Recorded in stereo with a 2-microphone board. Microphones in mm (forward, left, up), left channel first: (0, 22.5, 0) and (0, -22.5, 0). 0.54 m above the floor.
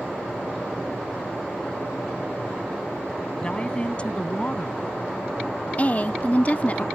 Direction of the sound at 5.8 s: 35° left (ahead or behind).